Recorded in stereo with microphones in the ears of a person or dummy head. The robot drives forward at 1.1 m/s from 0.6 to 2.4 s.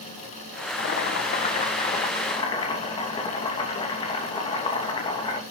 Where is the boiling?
65° left (ahead or behind), 1.5 m; by 5.4 s 30° left (ahead or behind), 2.5 m.